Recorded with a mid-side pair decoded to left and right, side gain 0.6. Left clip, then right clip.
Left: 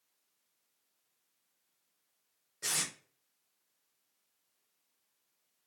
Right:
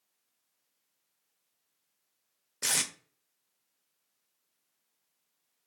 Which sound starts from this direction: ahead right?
Tape being pulled, at 2.6 s.